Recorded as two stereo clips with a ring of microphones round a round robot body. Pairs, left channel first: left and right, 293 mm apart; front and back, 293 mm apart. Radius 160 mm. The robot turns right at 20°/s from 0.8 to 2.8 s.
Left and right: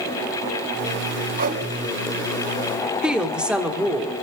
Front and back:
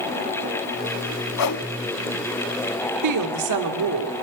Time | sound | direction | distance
1.4 | a whoosh | 30° right | 0.8 m
3.0 | a woman speaking | 175° right | 1.7 m